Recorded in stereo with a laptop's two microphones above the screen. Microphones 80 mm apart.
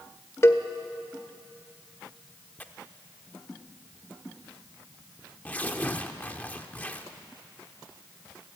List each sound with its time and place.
0.4 s a cowbell: 35° left (ahead or behind), 1.4 m
2.6 s tearing paper: 20° left (ahead or behind), 0.9 m